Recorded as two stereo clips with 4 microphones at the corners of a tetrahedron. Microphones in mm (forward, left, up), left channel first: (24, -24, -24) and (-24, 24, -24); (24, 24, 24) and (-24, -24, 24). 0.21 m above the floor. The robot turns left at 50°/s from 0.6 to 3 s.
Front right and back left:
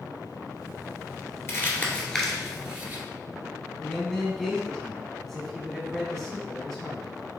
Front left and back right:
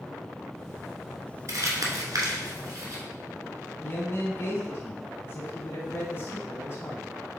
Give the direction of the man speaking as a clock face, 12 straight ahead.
11 o'clock.